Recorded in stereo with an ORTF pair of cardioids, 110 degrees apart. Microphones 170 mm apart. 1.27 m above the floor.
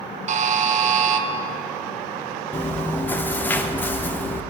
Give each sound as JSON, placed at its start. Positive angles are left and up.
{"t": 0.3, "sound": "a buzzer", "azimuth_deg": -45, "distance_m": 0.9}
{"t": 2.5, "sound": "chewing", "azimuth_deg": 10, "distance_m": 0.8}